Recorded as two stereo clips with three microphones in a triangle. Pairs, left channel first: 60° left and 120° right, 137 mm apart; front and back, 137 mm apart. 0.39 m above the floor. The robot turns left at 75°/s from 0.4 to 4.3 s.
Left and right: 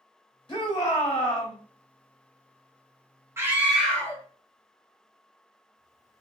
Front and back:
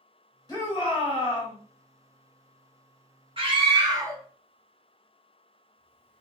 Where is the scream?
175° right, 1.0 m; by 6.2 s 115° left, 1.0 m.